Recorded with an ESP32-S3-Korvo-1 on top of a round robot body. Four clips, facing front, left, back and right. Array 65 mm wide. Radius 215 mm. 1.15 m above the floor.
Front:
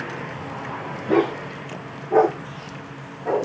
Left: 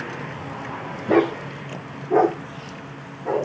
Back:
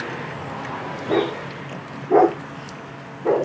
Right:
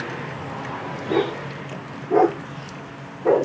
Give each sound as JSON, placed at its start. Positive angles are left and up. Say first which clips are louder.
{"t": 1.1, "sound": "a dog barking", "louder": "left 4 dB, front 2 dB", "azimuth_deg": 100, "distance_m": 1.4}